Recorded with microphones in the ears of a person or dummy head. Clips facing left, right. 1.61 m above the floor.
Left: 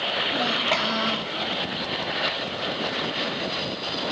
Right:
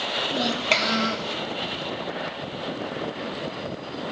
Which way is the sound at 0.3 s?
40° right (ahead or behind).